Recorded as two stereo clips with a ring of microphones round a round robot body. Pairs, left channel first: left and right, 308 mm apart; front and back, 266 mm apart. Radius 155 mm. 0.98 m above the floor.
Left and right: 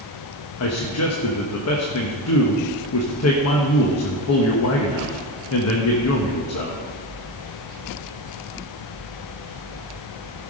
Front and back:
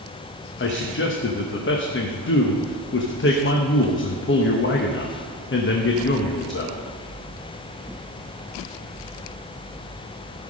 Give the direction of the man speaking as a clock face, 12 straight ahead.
10 o'clock.